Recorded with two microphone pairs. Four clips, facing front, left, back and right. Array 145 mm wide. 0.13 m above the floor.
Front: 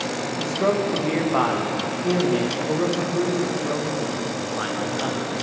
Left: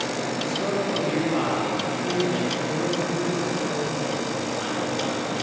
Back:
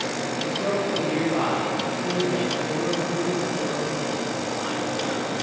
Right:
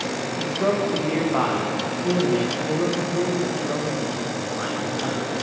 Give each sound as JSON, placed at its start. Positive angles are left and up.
{"t": 0.4, "sound": "a man speaking", "azimuth_deg": -20, "distance_m": 8.0}